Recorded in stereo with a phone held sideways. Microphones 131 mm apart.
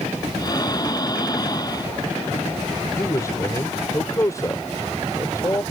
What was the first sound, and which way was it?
Breathing, 30° left (ahead or behind).